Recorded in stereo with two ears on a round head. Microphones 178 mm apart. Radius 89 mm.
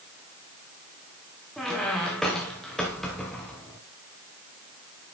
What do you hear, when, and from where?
1.6 s a squeak: centre (ahead or behind), 4 m